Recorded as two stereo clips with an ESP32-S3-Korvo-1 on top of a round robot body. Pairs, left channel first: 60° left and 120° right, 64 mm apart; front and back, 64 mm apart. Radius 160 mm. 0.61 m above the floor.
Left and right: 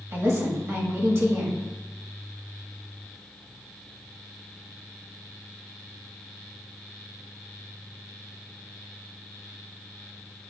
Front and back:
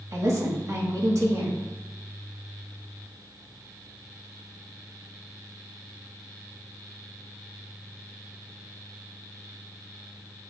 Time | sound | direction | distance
0.1 | a woman speaking | 155° right | 1.5 m